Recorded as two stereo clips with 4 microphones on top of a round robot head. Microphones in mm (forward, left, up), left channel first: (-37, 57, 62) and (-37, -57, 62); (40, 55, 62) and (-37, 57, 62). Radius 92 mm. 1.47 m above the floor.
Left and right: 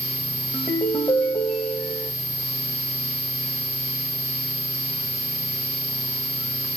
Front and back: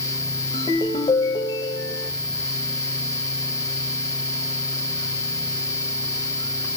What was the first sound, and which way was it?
A ringtone, 15° left.